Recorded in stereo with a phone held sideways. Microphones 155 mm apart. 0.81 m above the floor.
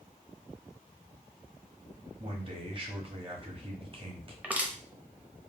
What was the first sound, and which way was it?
A man speaking, 35° right (ahead or behind).